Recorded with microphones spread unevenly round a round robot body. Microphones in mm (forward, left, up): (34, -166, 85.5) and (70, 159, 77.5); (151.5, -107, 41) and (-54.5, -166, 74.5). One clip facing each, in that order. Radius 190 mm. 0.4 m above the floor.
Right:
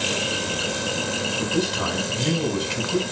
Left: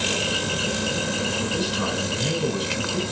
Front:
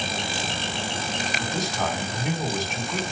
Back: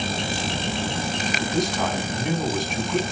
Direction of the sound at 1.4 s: 70° right.